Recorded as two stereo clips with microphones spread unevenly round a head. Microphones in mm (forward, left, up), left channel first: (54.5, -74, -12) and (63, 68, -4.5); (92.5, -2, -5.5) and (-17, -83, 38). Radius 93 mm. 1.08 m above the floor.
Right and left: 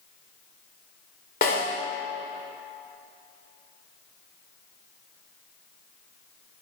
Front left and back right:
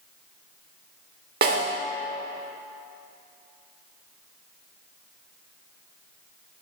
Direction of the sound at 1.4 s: 140° right.